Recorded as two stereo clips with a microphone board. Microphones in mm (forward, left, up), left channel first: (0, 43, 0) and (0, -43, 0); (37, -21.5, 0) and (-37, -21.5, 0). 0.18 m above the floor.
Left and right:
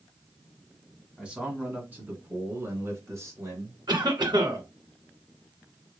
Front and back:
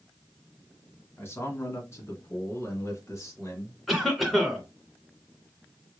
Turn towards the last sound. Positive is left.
turn(degrees=-90)